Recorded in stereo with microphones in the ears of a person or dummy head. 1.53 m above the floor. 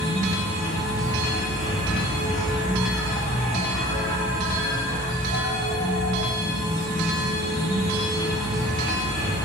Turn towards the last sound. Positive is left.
turn(degrees=10)  # may be behind; listen again after turning